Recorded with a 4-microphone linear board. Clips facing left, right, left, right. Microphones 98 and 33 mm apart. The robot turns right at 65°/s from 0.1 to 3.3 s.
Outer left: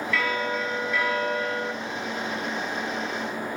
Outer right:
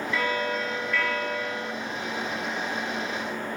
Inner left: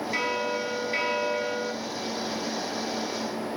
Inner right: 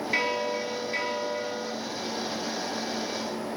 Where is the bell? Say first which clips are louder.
Even, inner right 1 dB; 35° right, 0.7 m; by 1.7 s 70° left, 0.7 m.